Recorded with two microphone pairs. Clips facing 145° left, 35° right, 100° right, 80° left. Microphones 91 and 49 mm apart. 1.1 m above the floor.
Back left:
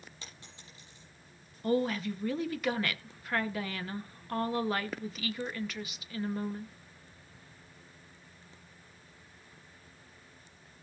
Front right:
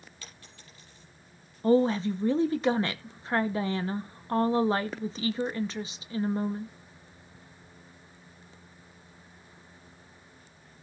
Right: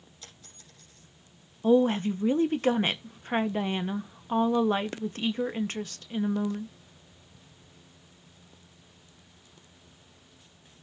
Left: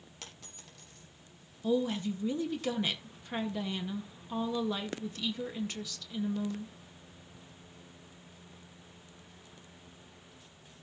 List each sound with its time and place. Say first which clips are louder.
0.2 s a dropped coin: front right 1 dB, left 3 dB; 75° left, 6.5 m
1.6 s a woman speaking: front right 7 dB, right 8 dB; 80° right, 0.8 m